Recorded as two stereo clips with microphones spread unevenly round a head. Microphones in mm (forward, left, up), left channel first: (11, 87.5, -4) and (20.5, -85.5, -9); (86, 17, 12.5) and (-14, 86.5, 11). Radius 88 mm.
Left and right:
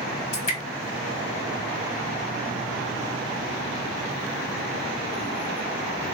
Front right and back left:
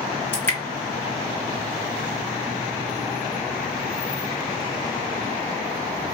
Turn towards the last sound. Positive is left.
turn(degrees=40)